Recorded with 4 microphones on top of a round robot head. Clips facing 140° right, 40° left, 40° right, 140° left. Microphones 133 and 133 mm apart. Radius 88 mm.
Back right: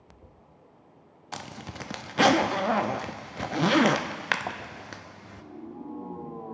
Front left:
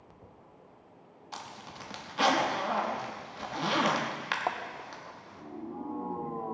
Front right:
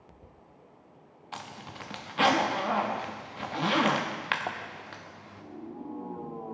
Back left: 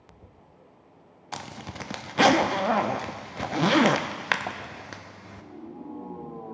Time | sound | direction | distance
1.3 | a zipper | 175° right | 0.6 m